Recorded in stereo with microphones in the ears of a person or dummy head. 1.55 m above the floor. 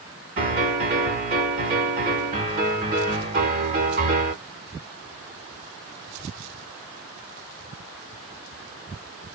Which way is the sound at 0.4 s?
35° right (ahead or behind).